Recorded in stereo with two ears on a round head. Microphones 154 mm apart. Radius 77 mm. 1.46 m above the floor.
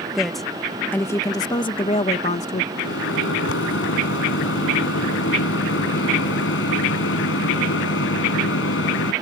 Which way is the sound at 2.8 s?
85° left.